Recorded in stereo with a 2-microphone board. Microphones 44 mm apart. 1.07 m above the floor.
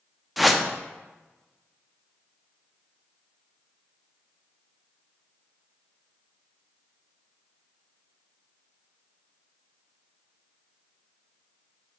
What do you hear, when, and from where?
0.4 s a whoosh: 5° right (ahead or behind), 0.5 m